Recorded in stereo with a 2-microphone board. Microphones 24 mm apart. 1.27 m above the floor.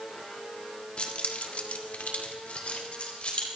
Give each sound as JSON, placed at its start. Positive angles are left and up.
{"t": 1.0, "sound": "keys jangling", "side_deg": 45, "distance_m": 1.5}